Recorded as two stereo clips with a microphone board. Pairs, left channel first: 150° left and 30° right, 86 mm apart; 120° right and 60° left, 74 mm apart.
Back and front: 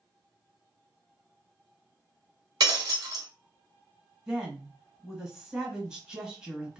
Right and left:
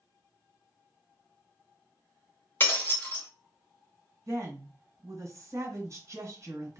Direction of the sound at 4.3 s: 50° left.